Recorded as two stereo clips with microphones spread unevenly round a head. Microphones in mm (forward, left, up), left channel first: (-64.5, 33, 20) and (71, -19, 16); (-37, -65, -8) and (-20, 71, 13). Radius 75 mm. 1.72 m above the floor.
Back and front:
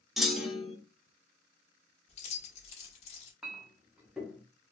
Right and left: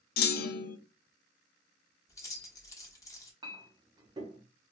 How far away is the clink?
About 0.9 m.